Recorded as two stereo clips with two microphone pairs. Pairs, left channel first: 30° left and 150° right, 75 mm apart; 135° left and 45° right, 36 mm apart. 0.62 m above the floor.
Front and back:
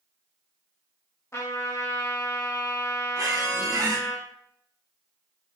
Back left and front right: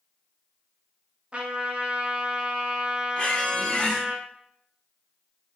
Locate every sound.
1.3 s a trumpet: straight ahead, 0.5 m
3.2 s a squeak: 170° right, 0.6 m